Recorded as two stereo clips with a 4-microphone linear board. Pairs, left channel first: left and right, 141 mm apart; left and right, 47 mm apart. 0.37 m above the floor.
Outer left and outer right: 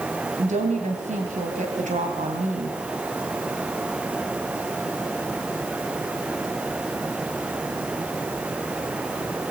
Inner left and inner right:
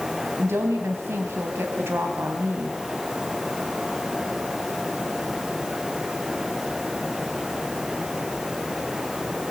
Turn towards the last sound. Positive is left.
turn(degrees=-65)  # may be behind; listen again after turning